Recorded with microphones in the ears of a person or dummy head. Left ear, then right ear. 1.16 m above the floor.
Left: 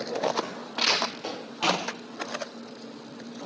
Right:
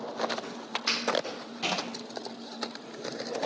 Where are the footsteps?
50° left (ahead or behind), 1.8 m; by 1.8 s 30° left (ahead or behind), 1.9 m.